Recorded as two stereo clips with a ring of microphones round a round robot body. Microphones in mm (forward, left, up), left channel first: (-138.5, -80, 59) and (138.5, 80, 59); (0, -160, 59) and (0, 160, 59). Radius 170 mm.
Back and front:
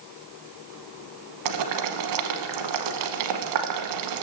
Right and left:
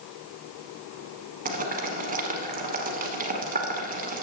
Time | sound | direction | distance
1.4 | boiling | 25° left | 1.0 m